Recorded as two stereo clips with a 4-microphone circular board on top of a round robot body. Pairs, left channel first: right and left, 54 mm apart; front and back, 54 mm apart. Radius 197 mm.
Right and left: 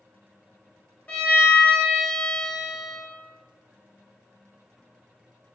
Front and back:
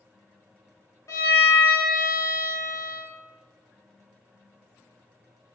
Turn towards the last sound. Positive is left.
turn(degrees=-30)